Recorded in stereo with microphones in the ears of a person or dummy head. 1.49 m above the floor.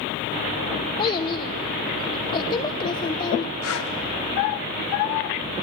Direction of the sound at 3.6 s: 75° left (ahead or behind).